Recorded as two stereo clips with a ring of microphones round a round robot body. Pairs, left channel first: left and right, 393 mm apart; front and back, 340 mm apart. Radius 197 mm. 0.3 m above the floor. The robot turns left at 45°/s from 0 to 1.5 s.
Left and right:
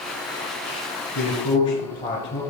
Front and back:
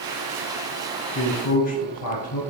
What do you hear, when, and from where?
1.1 s a man speaking: 30° left, 2.0 m; by 2.4 s 15° left, 2.0 m